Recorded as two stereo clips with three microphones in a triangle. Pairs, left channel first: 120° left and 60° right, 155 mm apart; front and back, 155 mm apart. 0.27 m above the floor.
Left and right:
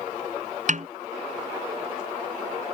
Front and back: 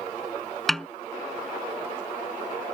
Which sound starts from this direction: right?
A snare drum, at 0.7 s.